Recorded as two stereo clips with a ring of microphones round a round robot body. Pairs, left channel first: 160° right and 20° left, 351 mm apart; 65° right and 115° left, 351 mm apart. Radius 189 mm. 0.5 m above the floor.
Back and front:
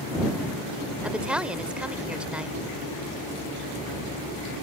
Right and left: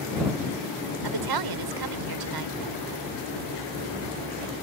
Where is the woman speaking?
110° left.